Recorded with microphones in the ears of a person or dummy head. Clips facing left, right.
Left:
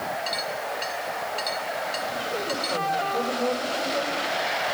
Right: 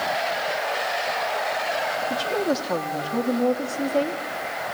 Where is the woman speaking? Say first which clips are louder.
Right 6 dB; 80° right, 2.5 m.